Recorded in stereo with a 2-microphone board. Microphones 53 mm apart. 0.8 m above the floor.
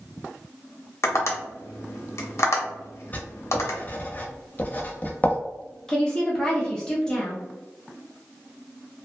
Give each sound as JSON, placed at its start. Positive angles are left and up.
{"t": 1.0, "sound": "tapping", "side_deg": 60, "distance_m": 0.7}
{"t": 3.1, "sound": "writing", "side_deg": 30, "distance_m": 0.6}
{"t": 5.9, "sound": "a woman speaking", "side_deg": 15, "distance_m": 0.7}